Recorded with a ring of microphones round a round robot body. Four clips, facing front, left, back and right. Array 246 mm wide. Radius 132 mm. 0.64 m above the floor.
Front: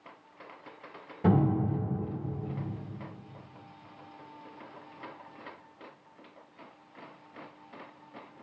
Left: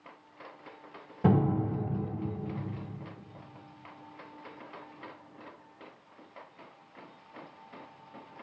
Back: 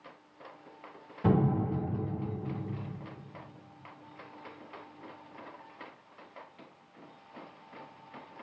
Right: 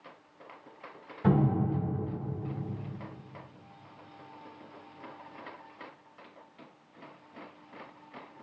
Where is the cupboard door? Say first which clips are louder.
Even, front 2 dB; 70° left, 1.5 m.